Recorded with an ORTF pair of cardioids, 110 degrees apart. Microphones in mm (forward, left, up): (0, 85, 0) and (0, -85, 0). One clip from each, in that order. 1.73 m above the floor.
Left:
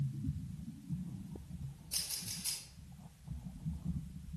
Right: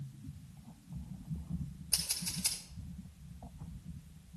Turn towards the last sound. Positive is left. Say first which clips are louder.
# right 4 dB
turn(degrees=-65)